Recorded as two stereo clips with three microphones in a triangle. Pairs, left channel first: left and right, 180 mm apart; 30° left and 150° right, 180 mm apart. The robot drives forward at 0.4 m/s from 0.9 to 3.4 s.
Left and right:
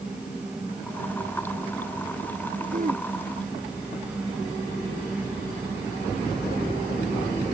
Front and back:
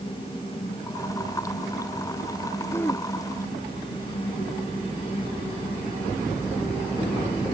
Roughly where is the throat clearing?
Ahead right.